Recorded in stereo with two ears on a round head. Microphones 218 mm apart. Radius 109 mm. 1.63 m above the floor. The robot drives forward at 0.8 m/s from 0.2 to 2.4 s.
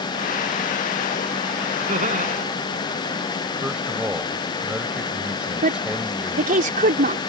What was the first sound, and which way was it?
Laughter, 30° right (ahead or behind).